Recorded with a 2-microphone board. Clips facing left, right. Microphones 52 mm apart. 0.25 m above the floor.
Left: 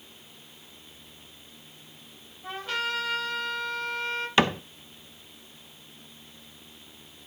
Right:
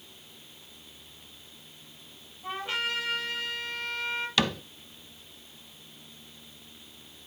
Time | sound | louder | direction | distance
2.4 | a trumpet | left 1 dB | 20° right (ahead or behind) | 8 m
4.4 | a cupboard door | left 6 dB | 30° left (ahead or behind) | 0.5 m